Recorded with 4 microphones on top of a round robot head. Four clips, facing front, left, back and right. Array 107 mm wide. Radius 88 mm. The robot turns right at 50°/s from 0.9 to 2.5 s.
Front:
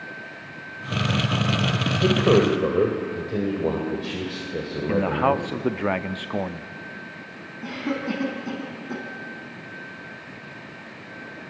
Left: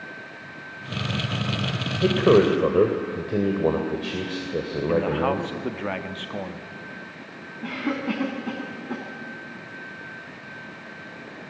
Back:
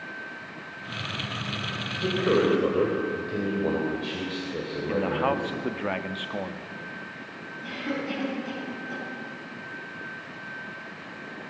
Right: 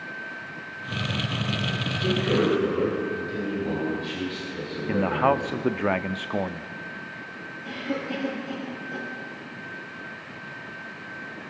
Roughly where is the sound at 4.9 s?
Ahead right.